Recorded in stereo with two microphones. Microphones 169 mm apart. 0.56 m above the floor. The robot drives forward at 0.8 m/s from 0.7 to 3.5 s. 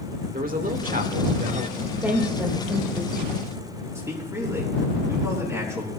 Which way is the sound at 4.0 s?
15° right (ahead or behind).